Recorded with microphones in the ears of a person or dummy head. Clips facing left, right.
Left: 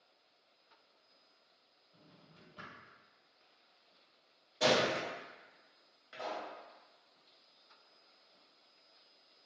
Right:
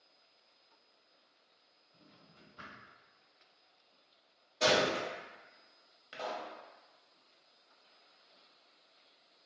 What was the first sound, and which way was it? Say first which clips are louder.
A drawer: even; 70° left (ahead or behind).